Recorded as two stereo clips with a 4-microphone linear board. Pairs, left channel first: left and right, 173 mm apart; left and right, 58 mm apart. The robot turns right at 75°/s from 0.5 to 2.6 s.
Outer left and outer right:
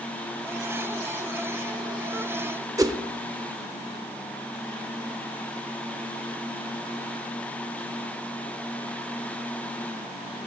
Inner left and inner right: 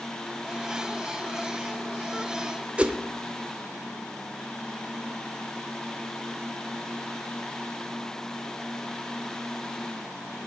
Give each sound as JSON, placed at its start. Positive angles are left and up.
{"t": 2.8, "sound": "a whoosh", "side_deg": -20, "distance_m": 0.5}